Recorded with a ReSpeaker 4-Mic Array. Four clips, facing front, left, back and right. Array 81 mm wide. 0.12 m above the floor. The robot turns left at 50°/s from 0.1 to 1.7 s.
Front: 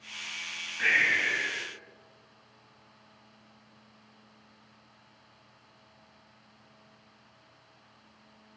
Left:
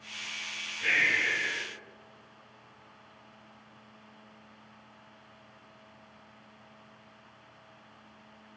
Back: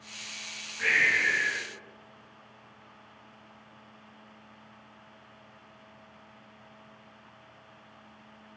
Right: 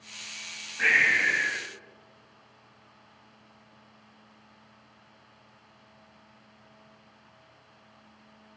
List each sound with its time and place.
0.8 s breathing: 80° right, 4.5 m; by 1.7 s 125° right, 4.5 m